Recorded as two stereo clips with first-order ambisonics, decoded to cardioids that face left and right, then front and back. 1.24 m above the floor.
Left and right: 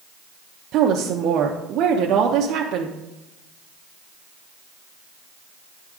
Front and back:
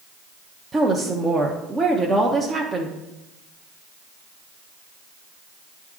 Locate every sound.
0.7 s a woman speaking: 110° right, 0.7 m